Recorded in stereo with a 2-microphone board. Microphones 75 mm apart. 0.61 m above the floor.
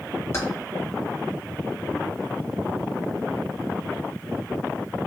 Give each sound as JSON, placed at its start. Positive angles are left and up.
{"t": 0.3, "sound": "keys jangling", "side_deg": 40, "distance_m": 0.7}